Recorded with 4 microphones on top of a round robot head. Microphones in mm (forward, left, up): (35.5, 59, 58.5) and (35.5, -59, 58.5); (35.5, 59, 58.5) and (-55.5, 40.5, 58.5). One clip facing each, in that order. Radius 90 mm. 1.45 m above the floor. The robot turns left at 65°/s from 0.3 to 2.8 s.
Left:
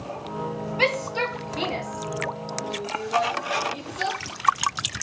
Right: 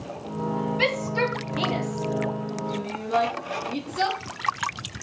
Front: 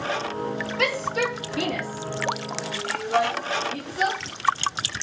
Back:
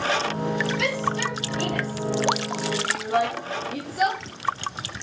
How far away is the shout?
About 2.5 m.